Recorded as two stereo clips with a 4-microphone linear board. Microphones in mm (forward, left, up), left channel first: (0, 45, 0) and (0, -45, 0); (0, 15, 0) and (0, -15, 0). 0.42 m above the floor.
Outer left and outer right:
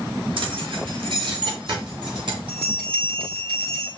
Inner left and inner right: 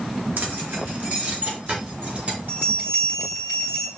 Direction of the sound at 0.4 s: 75° right (ahead or behind).